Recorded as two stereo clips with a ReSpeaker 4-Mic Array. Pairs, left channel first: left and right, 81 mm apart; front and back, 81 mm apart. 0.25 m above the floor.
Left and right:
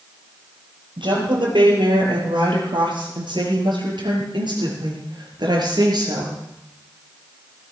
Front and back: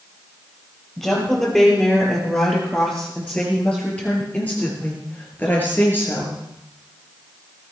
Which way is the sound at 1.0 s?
85° right.